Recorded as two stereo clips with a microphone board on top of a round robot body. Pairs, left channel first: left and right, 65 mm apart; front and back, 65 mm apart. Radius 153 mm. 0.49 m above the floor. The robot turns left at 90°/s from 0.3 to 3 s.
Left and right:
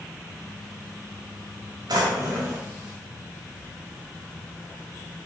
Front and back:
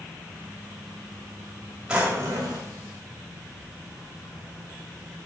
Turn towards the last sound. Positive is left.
turn(degrees=155)